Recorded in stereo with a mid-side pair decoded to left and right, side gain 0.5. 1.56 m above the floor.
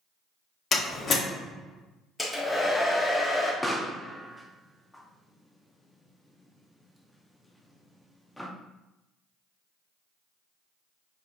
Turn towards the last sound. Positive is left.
turn(degrees=5)